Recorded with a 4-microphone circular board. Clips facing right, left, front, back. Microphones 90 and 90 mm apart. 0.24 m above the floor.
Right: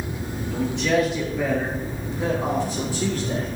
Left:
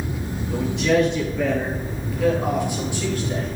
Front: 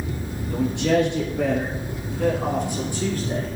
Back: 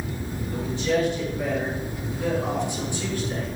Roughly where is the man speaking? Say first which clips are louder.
Left 2 dB, front 4 dB; ahead.